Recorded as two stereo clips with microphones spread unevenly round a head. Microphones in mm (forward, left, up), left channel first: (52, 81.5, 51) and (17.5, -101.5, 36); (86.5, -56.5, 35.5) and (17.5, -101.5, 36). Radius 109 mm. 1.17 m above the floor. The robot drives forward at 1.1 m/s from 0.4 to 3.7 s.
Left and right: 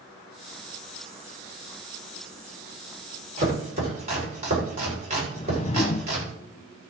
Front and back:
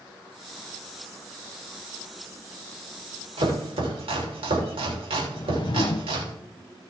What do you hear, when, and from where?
3.4 s chopping: 160° right, 3.5 m
5.3 s a whoosh: 25° left, 0.6 m